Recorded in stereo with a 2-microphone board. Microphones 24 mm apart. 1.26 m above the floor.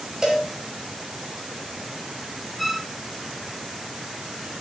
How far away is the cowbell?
About 5.5 m.